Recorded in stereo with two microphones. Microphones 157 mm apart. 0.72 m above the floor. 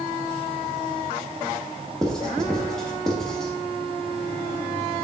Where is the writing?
5° left (ahead or behind), 0.6 m.